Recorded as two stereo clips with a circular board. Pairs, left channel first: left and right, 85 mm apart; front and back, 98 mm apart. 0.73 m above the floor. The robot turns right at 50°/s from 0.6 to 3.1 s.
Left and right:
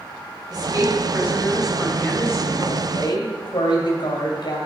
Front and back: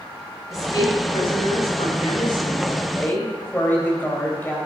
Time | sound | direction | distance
0.5 | a woman speaking | 55° right | 4 m